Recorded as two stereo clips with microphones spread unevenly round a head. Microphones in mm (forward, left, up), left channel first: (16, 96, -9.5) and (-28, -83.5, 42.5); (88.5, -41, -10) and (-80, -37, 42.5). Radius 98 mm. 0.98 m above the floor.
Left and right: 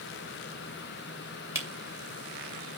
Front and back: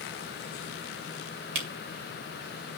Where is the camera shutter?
Straight behind, 2.5 m.